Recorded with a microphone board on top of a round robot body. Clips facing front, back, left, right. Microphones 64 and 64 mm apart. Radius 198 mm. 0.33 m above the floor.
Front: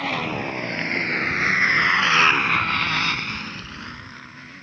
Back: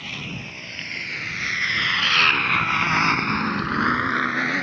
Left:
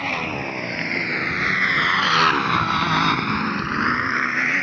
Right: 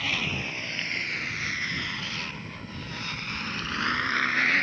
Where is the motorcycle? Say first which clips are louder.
Front 9 dB, left 5 dB; 35° left; by 4.6 s 165° left.